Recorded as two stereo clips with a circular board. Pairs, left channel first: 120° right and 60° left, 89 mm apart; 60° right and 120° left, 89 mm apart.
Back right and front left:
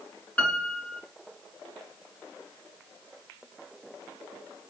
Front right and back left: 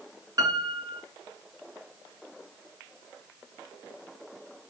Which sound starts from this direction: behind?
A piano, at 0.4 s.